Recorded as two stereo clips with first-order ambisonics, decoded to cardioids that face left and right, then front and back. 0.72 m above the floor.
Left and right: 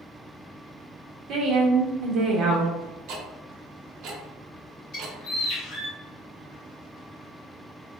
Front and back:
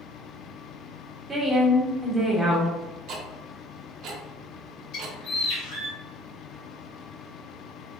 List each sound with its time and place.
1.3 s a woman speaking: 110° right, 0.7 m
3.1 s ticking: 130° right, 0.6 m
4.9 s a bird: 40° left, 1.4 m